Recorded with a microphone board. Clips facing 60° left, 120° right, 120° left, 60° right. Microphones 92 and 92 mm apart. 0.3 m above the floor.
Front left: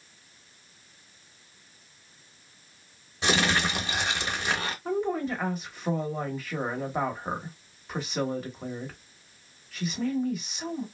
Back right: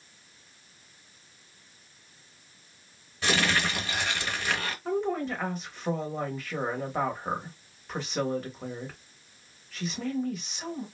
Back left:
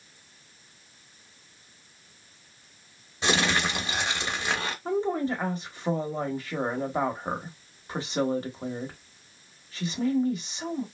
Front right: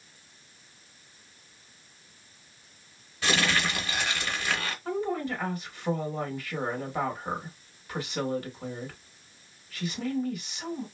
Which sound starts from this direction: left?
Crumpling, at 3.2 s.